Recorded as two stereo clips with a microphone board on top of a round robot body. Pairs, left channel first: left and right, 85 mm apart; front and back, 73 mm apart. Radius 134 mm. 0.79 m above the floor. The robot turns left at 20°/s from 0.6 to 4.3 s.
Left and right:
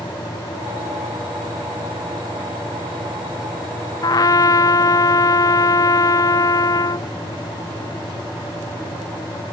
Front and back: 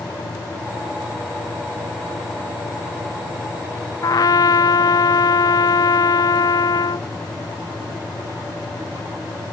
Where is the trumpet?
45° left; by 7.1 s 40° left.